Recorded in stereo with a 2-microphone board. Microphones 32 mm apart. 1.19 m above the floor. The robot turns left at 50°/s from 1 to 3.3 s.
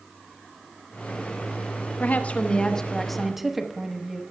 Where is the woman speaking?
60° left, 0.9 m; by 4.2 s 5° right, 0.9 m.